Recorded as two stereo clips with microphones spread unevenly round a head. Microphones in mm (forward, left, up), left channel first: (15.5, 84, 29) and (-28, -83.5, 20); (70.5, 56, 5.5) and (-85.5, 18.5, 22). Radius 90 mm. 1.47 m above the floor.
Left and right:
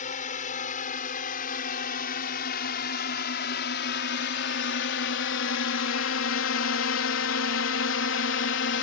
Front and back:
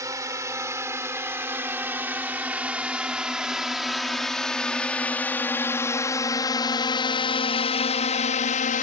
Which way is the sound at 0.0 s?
125° left.